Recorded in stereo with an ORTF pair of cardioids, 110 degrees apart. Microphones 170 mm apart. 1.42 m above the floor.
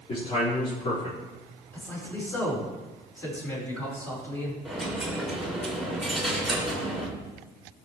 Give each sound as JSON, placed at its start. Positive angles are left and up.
{"t": 0.1, "sound": "a man speaking", "azimuth_deg": 40, "distance_m": 4.5}
{"t": 1.7, "sound": "a man speaking", "azimuth_deg": 15, "distance_m": 4.5}
{"t": 4.7, "sound": "a dropped coin", "azimuth_deg": 0, "distance_m": 3.0}